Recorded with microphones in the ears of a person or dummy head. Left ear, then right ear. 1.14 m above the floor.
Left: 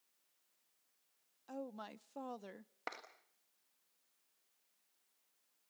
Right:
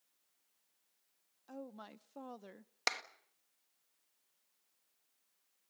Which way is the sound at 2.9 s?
70° right (ahead or behind).